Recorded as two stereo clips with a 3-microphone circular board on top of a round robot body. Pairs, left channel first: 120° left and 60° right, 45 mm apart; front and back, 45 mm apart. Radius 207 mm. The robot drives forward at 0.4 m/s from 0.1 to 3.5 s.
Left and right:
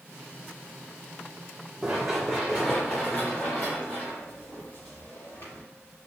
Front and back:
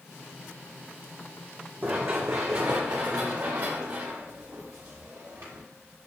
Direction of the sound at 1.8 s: 135° right.